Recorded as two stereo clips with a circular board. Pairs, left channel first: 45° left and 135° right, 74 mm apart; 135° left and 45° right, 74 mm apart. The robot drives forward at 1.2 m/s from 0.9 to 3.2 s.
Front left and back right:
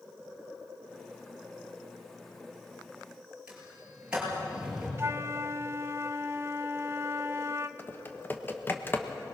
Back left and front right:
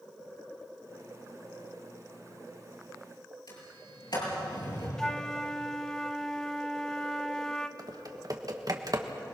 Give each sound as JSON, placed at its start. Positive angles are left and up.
{"t": 3.5, "sound": "a sliding door", "azimuth_deg": 150, "distance_m": 7.0}
{"t": 5.0, "sound": "a flute", "azimuth_deg": -150, "distance_m": 0.7}
{"t": 7.8, "sound": "typing on a keyboard", "azimuth_deg": -15, "distance_m": 1.4}